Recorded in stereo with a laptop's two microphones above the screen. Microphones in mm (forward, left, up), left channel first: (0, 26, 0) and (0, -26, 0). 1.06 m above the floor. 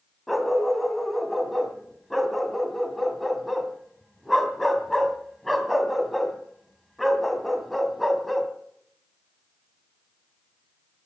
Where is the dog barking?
5° left (ahead or behind), 2.5 m.